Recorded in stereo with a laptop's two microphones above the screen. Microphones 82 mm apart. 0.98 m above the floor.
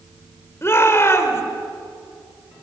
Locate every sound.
0.6 s a shout: 30° left (ahead or behind), 4 m